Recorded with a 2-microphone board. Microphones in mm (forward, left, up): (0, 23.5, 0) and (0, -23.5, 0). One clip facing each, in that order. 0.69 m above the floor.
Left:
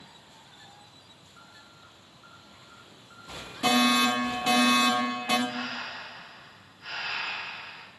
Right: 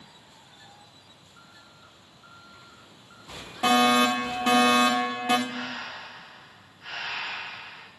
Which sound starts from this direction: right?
A fire alarm, at 3.6 s.